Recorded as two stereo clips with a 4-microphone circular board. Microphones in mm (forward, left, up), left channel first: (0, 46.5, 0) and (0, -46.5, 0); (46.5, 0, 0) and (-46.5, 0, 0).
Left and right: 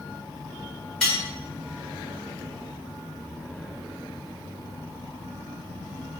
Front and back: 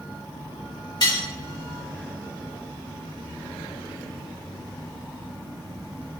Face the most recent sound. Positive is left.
turn(degrees=10)